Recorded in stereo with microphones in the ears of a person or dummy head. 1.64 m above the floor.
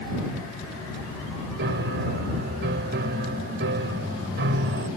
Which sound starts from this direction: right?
A piano, at 1.6 s.